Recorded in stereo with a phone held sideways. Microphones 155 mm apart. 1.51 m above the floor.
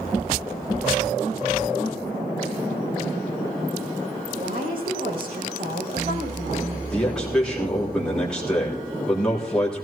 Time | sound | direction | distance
4.3 | a woman speaking | 80° right | 6 m
6.9 | a man speaking | 5° left (ahead or behind) | 3.5 m